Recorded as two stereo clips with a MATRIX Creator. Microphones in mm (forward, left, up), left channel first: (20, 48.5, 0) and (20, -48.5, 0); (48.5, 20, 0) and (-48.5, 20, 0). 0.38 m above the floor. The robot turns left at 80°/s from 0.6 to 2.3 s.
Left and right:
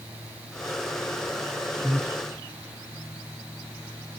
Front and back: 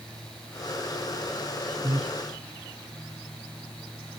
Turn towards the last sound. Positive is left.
turn(degrees=160)